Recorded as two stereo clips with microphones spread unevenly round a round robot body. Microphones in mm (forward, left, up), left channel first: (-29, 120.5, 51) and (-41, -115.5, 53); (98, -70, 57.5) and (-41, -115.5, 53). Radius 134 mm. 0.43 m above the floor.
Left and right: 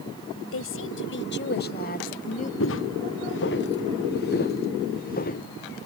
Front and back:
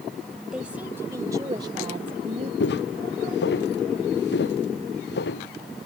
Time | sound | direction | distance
0.5 | a woman speaking | 110° left | ?
2.6 | footsteps | 40° left | ?